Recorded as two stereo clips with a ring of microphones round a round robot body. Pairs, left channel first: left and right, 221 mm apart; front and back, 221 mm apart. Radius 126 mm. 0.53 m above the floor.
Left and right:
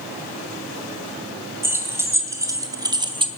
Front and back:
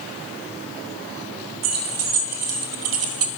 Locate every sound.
1.6 s keys jangling: 170° right, 3 m; by 3.3 s 155° right, 1.4 m